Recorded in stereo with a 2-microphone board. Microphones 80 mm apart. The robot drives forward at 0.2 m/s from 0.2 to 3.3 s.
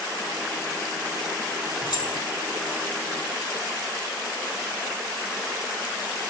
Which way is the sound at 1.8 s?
70° left (ahead or behind).